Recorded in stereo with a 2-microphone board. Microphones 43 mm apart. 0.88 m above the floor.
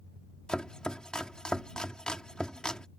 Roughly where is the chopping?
Left.